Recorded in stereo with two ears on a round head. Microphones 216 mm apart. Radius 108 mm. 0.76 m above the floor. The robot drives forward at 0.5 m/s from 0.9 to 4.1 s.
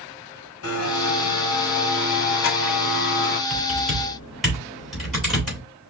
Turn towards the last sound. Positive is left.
turn(degrees=0)  # may be behind; listen again after turning